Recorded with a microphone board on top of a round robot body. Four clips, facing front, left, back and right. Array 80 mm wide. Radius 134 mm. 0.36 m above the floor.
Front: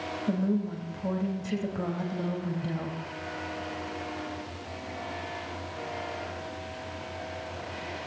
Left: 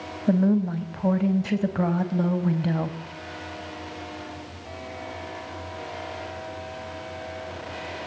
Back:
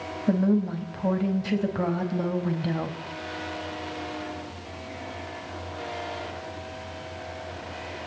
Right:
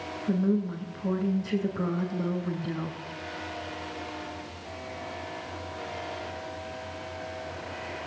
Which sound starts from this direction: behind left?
A woman speaking, at 0.3 s.